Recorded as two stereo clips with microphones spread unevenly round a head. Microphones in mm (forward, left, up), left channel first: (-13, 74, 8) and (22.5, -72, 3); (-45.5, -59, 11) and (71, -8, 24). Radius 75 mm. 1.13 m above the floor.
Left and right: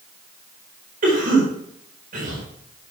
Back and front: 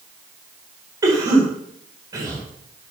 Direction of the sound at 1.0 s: 40° right.